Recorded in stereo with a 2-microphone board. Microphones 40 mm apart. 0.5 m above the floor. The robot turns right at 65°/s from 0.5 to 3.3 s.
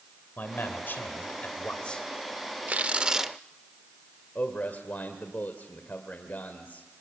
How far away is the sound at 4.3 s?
About 1.7 m.